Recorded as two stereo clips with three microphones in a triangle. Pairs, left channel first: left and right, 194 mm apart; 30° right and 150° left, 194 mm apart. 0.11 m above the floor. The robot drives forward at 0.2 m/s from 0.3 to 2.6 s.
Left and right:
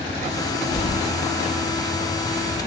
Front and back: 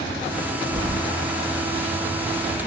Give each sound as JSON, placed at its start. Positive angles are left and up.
{"t": 0.7, "sound": "keys jangling", "azimuth_deg": 110, "distance_m": 0.8}